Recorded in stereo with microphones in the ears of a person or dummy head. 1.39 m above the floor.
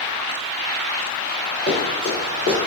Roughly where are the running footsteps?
Right.